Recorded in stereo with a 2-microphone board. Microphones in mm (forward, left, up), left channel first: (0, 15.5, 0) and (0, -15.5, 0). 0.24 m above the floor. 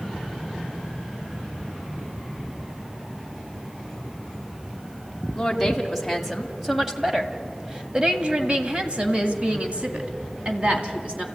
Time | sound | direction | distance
5.3 | a woman speaking | 5° left (ahead or behind) | 2.0 m